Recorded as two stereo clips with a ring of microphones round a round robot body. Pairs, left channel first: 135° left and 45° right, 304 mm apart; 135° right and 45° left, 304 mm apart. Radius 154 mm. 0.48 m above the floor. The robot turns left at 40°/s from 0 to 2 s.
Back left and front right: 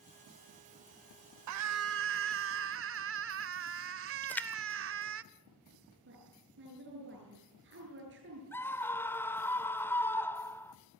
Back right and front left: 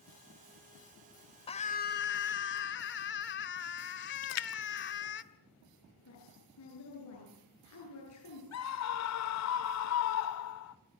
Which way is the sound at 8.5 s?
145° right.